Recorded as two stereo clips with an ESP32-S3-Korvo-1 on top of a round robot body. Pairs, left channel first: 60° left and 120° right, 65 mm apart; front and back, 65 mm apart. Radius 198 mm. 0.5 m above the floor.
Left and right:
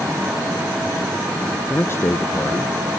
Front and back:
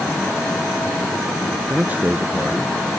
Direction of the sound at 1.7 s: 115° left.